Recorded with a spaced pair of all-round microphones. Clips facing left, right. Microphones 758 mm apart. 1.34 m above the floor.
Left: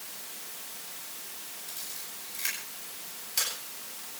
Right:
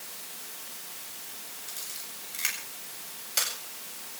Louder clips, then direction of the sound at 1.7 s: Even; 85° right.